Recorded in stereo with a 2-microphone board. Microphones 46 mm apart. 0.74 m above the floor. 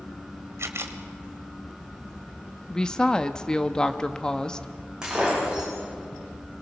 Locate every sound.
0.6 s a camera shutter: 70° right (ahead or behind), 1.5 m
2.7 s a woman speaking: 15° left (ahead or behind), 0.9 m
5.0 s breaking glass: 15° right (ahead or behind), 9 m